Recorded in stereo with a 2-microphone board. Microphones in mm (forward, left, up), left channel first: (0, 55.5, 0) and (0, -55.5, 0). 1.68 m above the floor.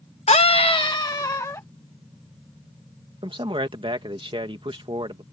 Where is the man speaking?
45° right (ahead or behind).